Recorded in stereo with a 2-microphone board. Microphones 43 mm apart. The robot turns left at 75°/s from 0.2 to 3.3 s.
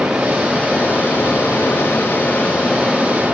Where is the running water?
165° right, 3 m; by 3.4 s 35° right, 3 m.